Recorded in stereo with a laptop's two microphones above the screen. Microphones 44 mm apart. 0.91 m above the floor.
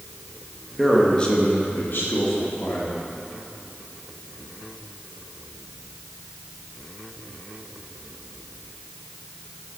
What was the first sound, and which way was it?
A man speaking, centre (ahead or behind).